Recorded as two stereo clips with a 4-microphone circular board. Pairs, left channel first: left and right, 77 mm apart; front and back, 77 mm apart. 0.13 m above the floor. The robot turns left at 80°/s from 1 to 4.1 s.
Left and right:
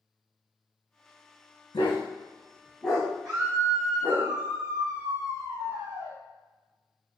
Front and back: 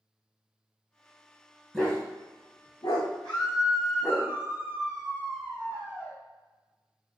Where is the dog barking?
95° left, 3 m; by 4.2 s 95° right, 3 m.